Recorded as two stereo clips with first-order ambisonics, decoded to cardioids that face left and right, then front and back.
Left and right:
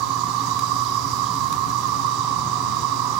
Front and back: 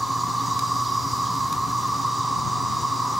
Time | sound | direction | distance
0.0 | an insect | 95° right | 1.4 m